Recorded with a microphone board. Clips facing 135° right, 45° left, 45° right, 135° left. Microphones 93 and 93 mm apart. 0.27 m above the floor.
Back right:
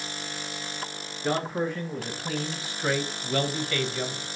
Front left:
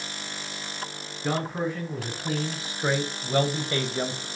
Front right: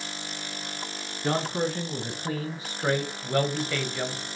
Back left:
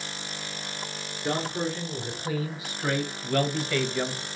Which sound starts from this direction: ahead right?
A man speaking, at 1.2 s.